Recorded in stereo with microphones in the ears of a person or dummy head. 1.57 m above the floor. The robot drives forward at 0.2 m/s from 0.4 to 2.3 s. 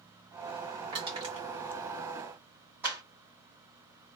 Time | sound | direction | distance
0.9 | crushing | 30° right (ahead or behind) | 1.4 m
2.8 | a clap | 15° right (ahead or behind) | 1.7 m